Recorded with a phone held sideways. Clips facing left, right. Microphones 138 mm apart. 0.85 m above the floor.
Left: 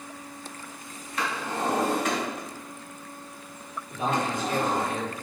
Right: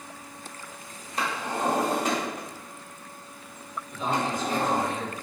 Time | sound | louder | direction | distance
1.2 | a drawer | right 1 dB | 35° right (ahead or behind) | 1.0 m
3.9 | a man speaking | left 1 dB | 60° left (ahead or behind) | 1.1 m